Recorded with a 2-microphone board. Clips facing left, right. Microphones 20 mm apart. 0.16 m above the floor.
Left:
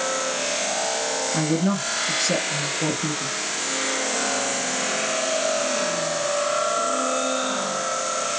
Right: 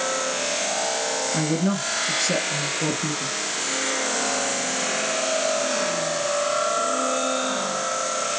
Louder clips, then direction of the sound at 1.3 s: Left 2 dB; centre (ahead or behind).